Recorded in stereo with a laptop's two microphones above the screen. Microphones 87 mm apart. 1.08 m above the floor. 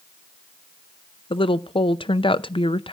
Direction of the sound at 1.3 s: 75° left (ahead or behind).